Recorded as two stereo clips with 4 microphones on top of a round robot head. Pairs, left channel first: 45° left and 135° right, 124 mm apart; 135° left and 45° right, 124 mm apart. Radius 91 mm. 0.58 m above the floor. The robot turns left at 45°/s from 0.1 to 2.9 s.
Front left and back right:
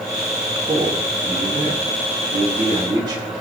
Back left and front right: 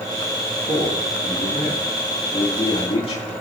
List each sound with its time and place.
0.7 s a man speaking: 85° right, 5.5 m; by 3.2 s 175° left, 5.5 m